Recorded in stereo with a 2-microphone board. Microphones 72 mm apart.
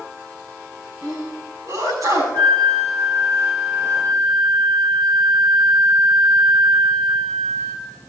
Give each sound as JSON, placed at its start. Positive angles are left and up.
{"t": 1.0, "sound": "a sneeze", "side_deg": -55, "distance_m": 5.0}
{"t": 2.3, "sound": "a flute", "side_deg": -60, "distance_m": 3.5}